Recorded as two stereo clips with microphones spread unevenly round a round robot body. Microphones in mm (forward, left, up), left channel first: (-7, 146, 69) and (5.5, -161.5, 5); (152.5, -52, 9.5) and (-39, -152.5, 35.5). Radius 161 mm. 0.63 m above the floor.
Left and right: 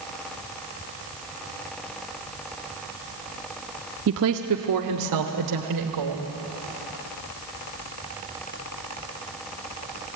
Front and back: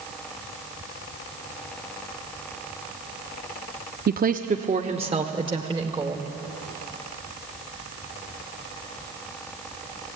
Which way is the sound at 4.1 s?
110° right.